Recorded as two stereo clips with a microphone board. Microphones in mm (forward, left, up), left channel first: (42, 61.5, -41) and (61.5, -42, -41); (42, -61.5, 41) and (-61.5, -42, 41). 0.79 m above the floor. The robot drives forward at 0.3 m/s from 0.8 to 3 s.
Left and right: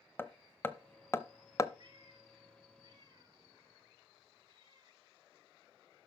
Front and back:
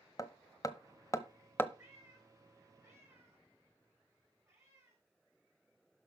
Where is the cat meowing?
125° right, 6 m; by 5.0 s 130° right, 6.5 m.